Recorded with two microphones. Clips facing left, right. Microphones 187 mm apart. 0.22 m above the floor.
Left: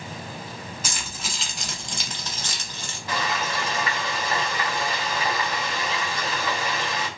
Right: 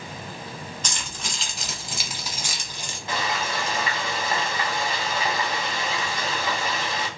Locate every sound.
0.8 s keys jangling: 10° left (ahead or behind), 0.9 m; by 3.0 s 15° right (ahead or behind), 0.9 m
3.1 s frying: 25° right (ahead or behind), 1.3 m